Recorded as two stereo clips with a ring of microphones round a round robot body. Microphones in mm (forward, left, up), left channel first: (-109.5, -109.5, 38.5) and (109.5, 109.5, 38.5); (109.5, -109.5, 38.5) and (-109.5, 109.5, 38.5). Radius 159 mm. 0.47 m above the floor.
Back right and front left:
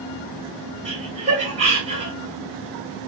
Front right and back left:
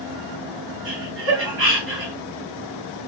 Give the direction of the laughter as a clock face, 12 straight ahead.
8 o'clock.